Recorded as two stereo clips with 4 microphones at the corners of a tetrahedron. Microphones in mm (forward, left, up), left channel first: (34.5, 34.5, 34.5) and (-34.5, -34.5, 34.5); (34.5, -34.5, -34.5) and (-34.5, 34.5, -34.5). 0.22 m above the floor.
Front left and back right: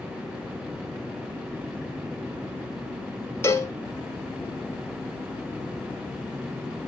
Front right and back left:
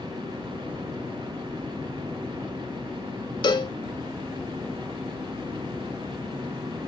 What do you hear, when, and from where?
3.4 s a cowbell: 15° right, 0.5 m